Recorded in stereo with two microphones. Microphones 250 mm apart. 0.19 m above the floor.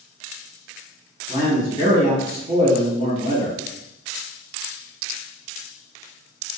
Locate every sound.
1.3 s a man speaking: 20° right (ahead or behind), 1.7 m